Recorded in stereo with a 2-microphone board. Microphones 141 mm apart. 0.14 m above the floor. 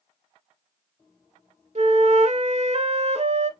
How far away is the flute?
About 0.6 m.